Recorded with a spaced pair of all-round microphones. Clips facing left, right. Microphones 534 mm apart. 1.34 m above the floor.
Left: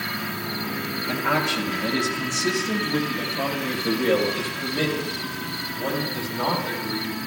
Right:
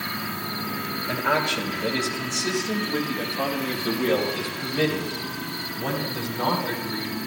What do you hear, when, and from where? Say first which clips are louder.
1.1 s a man speaking: left 1 dB; 30° left (ahead or behind), 4 m; by 7.2 s 80° left, 6 m